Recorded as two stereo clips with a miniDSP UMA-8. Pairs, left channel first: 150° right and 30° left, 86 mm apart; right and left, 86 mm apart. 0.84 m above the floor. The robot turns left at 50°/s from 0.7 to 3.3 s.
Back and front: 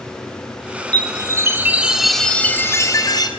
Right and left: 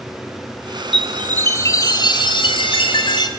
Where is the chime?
Straight ahead, 3 m; by 3.3 s 120° right, 3 m.